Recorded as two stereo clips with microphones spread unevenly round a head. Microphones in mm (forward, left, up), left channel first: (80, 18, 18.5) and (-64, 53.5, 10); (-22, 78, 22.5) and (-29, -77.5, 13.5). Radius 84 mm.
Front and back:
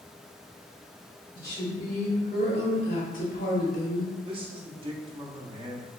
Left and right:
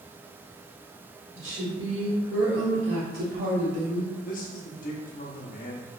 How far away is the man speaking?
About 0.8 m.